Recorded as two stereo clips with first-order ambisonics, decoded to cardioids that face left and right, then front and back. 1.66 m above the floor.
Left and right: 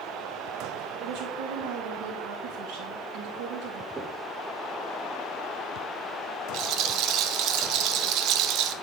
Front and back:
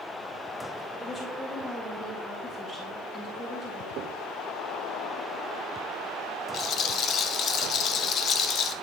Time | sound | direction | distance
1.0 | a woman speaking | 80° right | 1.8 m
4.0 | knocking | 160° right | 0.6 m
6.5 | a rattle | 50° right | 0.5 m